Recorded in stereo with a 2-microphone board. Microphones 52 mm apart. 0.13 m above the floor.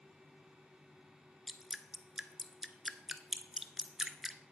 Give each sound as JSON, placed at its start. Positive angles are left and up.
{"t": 1.5, "sound": "dripping", "side_deg": -5, "distance_m": 0.5}